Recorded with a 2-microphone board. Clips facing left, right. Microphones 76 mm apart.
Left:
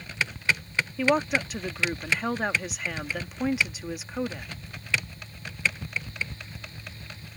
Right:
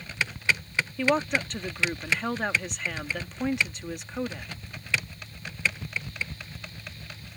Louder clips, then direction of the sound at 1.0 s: Left 1 dB; 5° left (ahead or behind).